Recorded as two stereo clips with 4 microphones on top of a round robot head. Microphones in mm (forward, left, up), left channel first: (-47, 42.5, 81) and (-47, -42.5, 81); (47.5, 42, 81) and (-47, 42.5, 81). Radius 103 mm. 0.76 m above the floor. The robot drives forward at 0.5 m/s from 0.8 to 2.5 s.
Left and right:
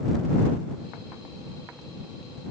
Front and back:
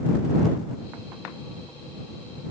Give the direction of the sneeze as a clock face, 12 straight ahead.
I don't hear a sneeze.